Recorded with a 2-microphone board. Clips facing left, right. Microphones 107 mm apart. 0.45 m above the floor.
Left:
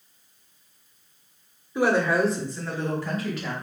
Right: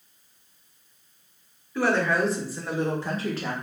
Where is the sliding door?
No sliding door in this recording.